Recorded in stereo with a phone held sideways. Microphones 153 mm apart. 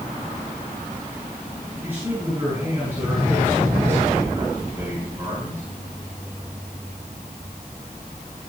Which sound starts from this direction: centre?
A man speaking, at 1.8 s.